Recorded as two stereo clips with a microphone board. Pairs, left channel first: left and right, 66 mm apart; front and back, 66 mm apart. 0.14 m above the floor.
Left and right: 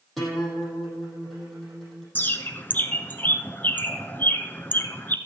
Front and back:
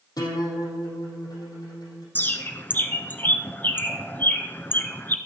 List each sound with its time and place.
0.2 s a guitar: 5° left, 5.5 m
2.1 s a bird: 45° left, 0.8 m